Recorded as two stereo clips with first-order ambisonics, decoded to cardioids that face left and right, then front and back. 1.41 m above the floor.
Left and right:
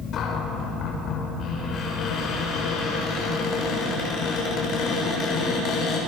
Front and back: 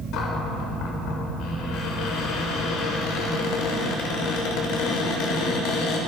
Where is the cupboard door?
35° left, 7 m.